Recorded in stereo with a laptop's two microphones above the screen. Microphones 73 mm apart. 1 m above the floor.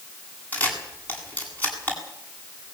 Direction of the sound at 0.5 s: 25° left (ahead or behind).